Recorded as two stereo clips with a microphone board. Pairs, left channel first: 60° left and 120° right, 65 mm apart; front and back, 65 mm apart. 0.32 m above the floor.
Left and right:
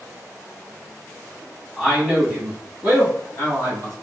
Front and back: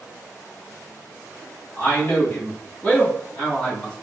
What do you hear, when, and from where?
1.8 s a man speaking: 45° right, 2 m; by 3.9 s 75° right, 2.5 m